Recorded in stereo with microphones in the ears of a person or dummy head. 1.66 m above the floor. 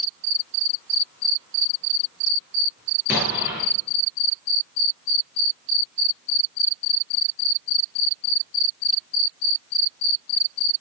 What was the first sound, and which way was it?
An explosion, 10° right (ahead or behind).